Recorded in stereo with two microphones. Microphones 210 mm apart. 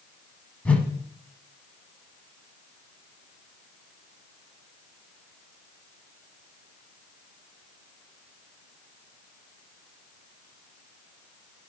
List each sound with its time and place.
0.7 s a whoosh: 5° left (ahead or behind), 0.6 m